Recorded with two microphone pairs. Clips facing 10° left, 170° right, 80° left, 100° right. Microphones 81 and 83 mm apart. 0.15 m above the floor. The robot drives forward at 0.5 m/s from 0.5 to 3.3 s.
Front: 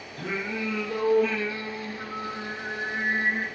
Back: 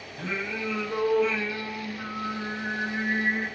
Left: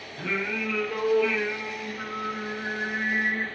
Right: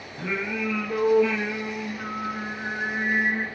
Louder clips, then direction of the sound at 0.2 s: Front 1 dB, right 1 dB; 25° right.